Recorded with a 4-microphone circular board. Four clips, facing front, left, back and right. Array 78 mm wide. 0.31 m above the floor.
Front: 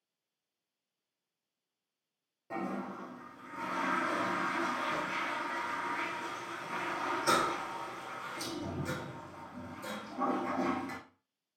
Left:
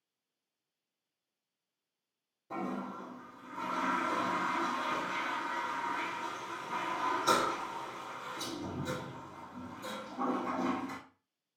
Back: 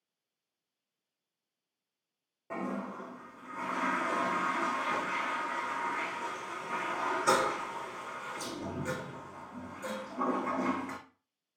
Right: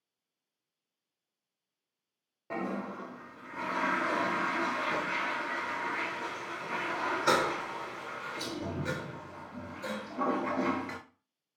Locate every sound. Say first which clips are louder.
2.5 s a toilet flushing: right 2 dB, back 1 dB; 110° right, 0.8 m